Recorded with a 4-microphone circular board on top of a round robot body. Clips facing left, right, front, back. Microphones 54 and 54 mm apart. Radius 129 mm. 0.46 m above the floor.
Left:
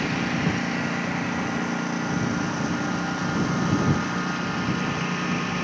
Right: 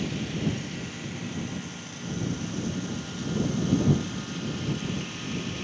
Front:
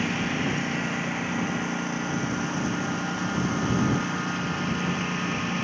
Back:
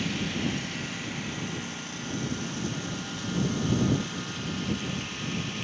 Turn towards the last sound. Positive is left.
turn(degrees=50)